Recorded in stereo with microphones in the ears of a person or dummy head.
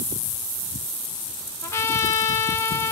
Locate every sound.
1.6 s a trumpet: 15° left (ahead or behind), 1.0 m